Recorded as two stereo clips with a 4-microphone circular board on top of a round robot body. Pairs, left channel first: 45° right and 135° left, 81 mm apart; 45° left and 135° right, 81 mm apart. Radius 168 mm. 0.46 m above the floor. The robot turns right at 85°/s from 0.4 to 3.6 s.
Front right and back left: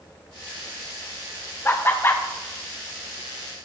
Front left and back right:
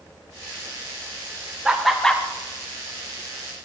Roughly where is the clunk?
No clunk in this recording.